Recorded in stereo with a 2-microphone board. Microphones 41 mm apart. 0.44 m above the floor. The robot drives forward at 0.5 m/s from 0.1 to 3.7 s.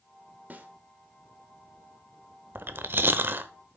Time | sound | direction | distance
0.5 | a snare drum | 45° right (ahead or behind) | 1.2 m
2.5 | chewing | 55° right (ahead or behind) | 0.7 m